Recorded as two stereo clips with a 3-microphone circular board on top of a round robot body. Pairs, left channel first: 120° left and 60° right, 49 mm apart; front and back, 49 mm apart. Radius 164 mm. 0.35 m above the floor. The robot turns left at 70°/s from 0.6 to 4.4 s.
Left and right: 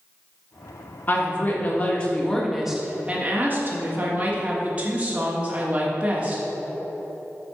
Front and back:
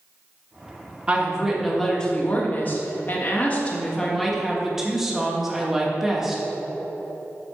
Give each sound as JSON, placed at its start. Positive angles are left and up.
{"t": 1.1, "sound": "a woman speaking", "azimuth_deg": 125, "distance_m": 1.7}